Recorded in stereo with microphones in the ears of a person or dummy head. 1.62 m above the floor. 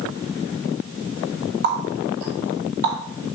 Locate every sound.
1.6 s a running tap: 55° right (ahead or behind), 1.8 m